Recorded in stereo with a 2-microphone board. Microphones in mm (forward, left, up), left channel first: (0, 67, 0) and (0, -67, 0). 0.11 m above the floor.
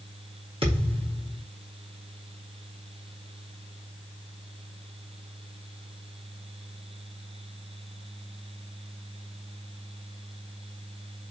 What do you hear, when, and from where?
0.6 s a thud: 45° right (ahead or behind), 5 m